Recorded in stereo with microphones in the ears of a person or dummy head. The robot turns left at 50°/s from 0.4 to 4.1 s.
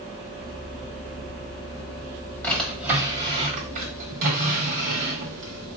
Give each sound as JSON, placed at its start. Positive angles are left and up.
{"t": 2.4, "sound": "a drawer", "side_deg": 10, "distance_m": 1.5}